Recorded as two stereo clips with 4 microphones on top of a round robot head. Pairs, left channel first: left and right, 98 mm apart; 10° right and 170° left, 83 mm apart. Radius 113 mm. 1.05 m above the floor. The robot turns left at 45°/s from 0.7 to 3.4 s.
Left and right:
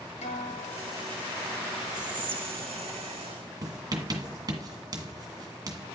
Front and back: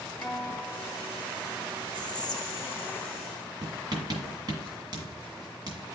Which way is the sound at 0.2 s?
70° left.